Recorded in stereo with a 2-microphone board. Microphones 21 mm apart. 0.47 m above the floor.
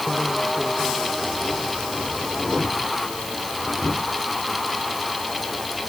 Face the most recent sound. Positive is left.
No sound to turn to.